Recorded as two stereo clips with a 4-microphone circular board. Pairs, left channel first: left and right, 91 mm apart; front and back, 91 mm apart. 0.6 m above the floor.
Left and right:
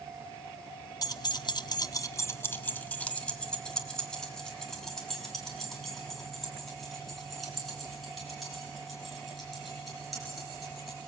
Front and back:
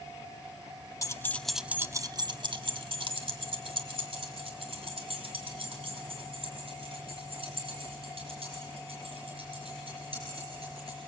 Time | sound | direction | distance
1.0 | keys jangling | 50° left | 0.6 m